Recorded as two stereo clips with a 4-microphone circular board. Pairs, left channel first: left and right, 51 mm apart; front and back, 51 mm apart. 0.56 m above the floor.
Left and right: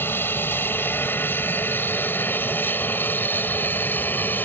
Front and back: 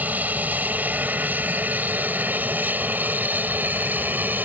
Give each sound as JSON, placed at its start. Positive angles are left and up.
{"t": 0.0, "sound": "an aircraft", "azimuth_deg": 130}